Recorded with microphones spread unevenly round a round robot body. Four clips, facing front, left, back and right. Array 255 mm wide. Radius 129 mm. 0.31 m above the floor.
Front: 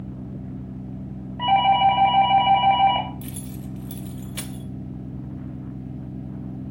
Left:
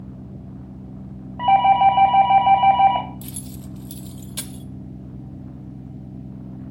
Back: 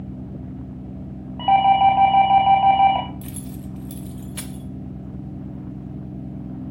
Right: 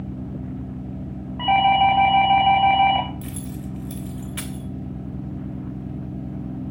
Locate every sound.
1.4 s a doorbell: 105° left, 2.5 m
3.2 s keys jangling: 80° left, 0.6 m